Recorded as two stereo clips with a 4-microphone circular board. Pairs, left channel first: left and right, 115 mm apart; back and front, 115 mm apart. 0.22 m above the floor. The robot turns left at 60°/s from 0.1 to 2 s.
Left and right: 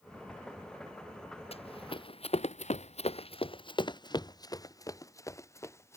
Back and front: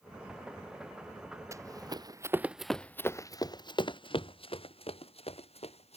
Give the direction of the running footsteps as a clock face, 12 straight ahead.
10 o'clock.